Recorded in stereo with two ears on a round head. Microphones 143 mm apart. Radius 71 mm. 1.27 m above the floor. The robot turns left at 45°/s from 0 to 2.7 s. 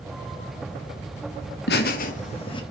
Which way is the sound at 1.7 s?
70° left (ahead or behind).